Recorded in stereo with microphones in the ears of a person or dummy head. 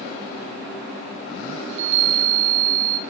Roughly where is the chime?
Right.